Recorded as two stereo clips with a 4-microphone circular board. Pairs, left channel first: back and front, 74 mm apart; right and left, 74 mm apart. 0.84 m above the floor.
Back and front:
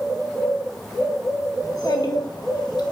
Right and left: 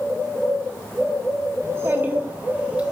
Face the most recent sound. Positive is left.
turn(degrees=165)